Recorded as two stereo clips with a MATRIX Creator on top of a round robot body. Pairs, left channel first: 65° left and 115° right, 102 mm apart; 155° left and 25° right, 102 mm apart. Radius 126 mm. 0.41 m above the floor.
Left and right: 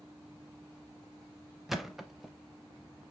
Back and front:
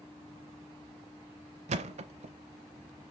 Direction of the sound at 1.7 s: 25° right.